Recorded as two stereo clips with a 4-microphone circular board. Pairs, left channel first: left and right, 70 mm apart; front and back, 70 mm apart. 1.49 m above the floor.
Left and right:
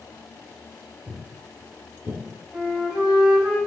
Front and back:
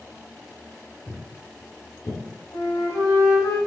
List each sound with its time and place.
1.1 s footsteps: 50° right, 1.6 m; by 2.2 s 15° right, 2.0 m
2.5 s a flute: straight ahead, 3 m